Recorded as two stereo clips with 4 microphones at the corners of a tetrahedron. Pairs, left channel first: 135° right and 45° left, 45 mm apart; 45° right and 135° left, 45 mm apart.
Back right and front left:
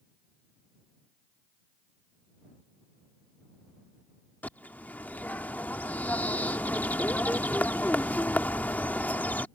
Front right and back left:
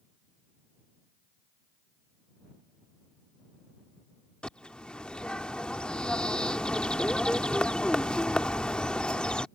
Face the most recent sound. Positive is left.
turn(degrees=-105)